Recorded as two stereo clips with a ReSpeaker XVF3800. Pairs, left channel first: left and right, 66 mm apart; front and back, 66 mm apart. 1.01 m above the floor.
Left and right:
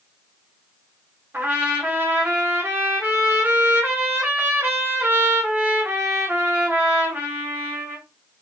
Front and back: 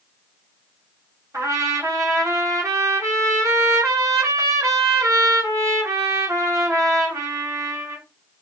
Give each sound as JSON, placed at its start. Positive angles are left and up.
{"t": 1.3, "sound": "a trumpet", "azimuth_deg": -145, "distance_m": 1.0}